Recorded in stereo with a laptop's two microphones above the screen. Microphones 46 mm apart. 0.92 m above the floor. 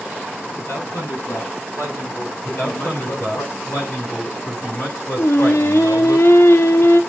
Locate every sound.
0.6 s a man speaking: 80° left, 8 m; by 3.4 s 75° left (ahead or behind), 9 m
2.4 s a man speaking: 65° left (ahead or behind), 7 m
5.2 s singing: 80° left, 1.3 m